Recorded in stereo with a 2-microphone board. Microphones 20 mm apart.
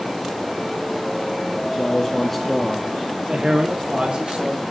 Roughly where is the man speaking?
Left.